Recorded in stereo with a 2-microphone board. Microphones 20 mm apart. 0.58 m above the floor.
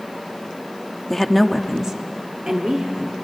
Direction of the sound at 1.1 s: 15° left (ahead or behind).